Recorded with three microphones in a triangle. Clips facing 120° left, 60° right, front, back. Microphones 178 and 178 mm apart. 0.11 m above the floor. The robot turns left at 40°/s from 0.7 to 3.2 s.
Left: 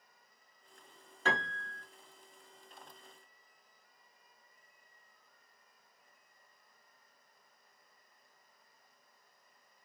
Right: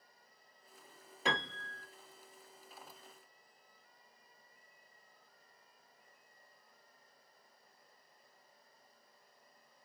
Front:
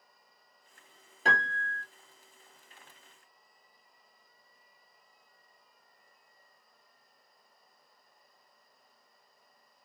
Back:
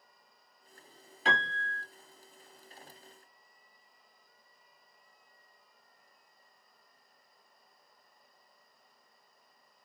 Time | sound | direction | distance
1.2 | a piano | 10° left | 1.3 m